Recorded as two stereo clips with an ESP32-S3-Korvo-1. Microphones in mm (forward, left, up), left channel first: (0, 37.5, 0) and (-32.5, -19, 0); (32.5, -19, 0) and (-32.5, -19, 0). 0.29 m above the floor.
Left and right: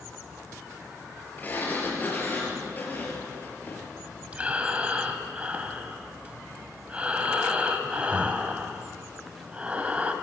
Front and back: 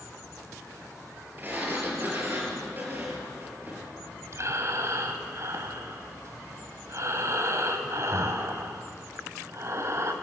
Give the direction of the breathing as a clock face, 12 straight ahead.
6 o'clock.